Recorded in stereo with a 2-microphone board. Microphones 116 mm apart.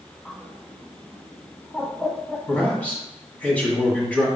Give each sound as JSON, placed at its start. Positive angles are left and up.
{"t": 0.2, "sound": "a bird", "side_deg": 10, "distance_m": 0.8}
{"t": 2.5, "sound": "a man speaking", "side_deg": 10, "distance_m": 1.4}